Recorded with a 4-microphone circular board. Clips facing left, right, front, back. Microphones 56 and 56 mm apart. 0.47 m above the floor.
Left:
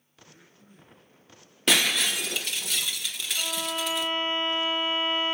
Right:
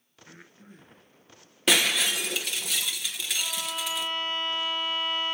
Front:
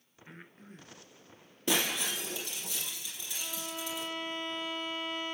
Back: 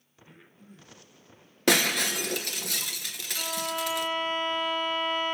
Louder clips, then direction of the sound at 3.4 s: Left 4 dB, back 9 dB; 155° left.